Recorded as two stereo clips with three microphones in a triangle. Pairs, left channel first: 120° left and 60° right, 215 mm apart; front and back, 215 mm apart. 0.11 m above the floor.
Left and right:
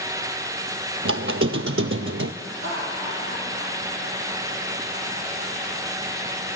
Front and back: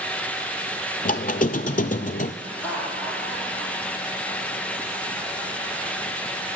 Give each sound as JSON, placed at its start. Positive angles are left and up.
{"t": 1.1, "sound": "a squeak", "azimuth_deg": -50, "distance_m": 0.6}
{"t": 2.4, "sound": "laughter", "azimuth_deg": -85, "distance_m": 4.5}